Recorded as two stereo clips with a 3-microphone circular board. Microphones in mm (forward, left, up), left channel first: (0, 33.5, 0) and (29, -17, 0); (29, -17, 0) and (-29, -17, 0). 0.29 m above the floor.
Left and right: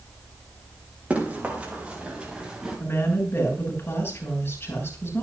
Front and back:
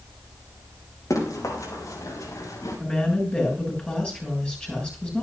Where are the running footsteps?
5° left, 6 m; by 2.8 s 15° left, 4 m.